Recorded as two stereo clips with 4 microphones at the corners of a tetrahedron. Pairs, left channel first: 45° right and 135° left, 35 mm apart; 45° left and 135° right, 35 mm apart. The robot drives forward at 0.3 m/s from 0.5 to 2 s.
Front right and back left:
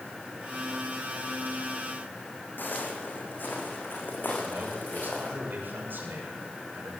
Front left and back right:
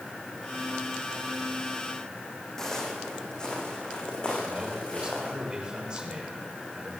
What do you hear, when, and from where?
2.6 s footsteps: 30° right, 5 m; by 5.3 s 15° right, 8.5 m
4.4 s a man speaking: 160° left, 7.5 m